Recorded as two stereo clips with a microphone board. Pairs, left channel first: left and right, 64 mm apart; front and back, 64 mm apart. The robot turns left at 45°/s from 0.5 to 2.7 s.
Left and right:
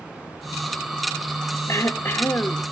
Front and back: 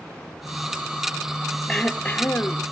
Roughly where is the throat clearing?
Left.